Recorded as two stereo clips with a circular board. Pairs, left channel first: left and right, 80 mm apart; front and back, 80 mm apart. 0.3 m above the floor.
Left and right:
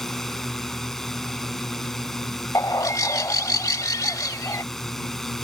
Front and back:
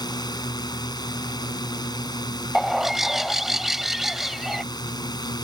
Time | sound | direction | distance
0.0 | a drone | 5° left | ?
2.5 | a bird | 95° left | ?